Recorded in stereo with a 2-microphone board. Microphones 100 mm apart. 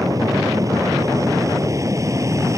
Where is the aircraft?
35° right (ahead or behind); by 2.6 s 30° right (ahead or behind).